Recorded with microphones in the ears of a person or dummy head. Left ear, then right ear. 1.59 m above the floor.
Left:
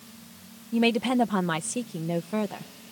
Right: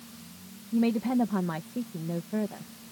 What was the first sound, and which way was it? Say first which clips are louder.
A woman speaking: left 4 dB; 75° left (ahead or behind).